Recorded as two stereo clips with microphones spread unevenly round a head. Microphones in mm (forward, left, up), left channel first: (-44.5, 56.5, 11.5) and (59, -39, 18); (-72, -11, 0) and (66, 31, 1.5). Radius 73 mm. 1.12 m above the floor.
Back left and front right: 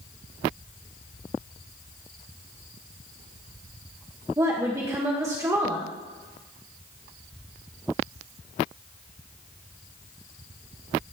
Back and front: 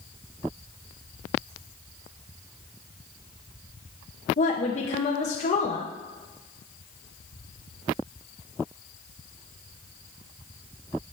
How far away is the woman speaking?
About 1.0 m.